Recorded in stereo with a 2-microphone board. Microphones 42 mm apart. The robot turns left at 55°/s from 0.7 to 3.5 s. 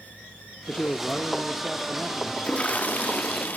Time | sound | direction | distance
0.7 | a man speaking | 45° left | 1.5 m
2.4 | a toilet flushing | 135° left | 0.6 m